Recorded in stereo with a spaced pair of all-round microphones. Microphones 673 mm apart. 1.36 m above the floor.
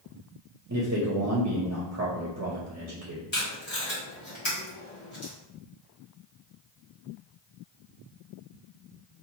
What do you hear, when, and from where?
0.7 s a man speaking: 25° right (ahead or behind), 0.5 m
3.3 s tape being pulled: 65° left (ahead or behind), 1.4 m